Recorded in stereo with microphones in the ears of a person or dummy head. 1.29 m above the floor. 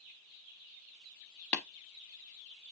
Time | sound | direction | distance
1.5 | tapping | 10° left (ahead or behind) | 0.9 m